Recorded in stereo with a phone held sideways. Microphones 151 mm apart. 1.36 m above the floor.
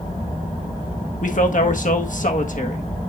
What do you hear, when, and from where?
1.2 s a man speaking: 60° left (ahead or behind), 1.6 m